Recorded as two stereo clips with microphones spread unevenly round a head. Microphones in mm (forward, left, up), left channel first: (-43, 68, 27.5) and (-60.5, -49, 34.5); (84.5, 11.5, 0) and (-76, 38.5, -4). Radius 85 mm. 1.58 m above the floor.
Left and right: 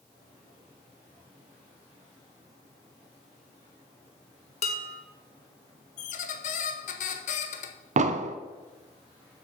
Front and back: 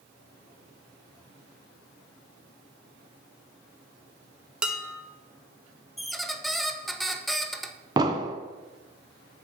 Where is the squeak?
80° left, 0.7 m.